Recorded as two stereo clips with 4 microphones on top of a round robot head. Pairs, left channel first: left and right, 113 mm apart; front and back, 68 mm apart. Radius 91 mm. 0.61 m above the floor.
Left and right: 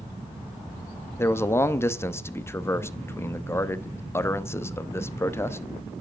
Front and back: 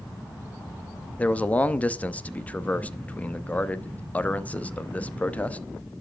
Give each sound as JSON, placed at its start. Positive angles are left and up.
{"t": 1.2, "sound": "a man speaking", "azimuth_deg": 45, "distance_m": 0.8}